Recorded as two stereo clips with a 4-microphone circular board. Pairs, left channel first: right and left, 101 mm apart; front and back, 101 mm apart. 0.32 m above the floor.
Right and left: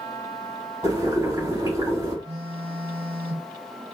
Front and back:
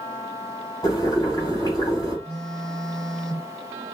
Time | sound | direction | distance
0.8 | boiling | 45° left | 2 m
2.2 | a phone buzzing | 85° left | 1.1 m